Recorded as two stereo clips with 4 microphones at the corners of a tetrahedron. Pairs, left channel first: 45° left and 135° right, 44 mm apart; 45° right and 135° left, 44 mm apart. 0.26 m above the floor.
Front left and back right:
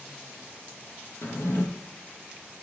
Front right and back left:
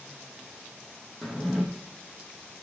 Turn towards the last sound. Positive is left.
turn(degrees=45)